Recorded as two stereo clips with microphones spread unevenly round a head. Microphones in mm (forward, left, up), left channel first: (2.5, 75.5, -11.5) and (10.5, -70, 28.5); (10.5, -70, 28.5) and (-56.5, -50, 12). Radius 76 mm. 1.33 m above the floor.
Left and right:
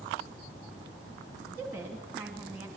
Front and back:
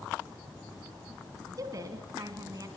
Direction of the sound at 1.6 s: 165° right.